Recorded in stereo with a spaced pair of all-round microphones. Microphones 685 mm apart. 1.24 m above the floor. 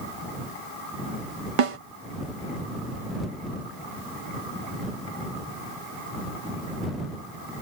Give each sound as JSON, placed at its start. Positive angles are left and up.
{"t": 1.6, "sound": "a snare drum", "side_deg": -50}